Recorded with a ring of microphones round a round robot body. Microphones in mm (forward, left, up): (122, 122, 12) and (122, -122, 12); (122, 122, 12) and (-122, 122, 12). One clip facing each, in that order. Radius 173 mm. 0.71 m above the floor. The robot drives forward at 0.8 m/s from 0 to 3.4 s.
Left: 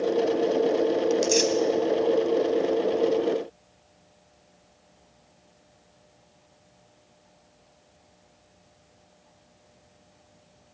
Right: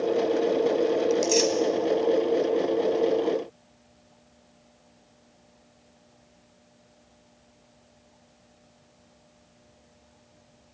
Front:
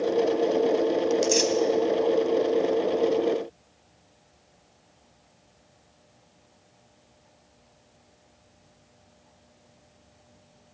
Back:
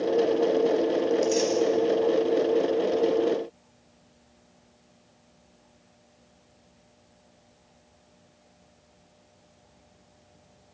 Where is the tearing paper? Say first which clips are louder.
Even, even; 15° left, 3 m.